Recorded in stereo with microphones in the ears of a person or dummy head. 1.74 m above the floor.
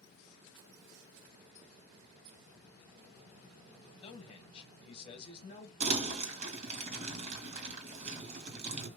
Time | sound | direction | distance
4.0 | a man speaking | 30° left (ahead or behind) | 1.5 m
5.8 | crumpling | 40° right (ahead or behind) | 2.5 m